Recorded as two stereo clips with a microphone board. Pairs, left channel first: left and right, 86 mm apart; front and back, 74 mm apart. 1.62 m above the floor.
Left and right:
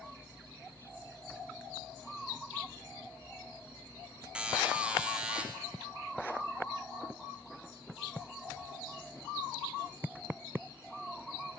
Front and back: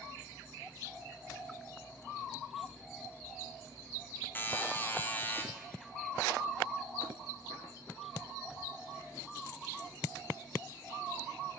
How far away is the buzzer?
About 0.6 m.